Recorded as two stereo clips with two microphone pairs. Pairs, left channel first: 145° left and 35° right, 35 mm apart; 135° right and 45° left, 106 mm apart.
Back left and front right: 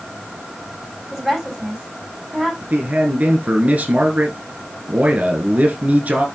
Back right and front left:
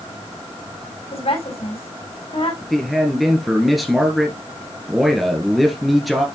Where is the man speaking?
45° right, 1.6 m.